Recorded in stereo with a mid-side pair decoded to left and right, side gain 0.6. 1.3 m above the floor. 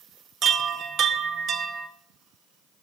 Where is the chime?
50° right, 0.9 m.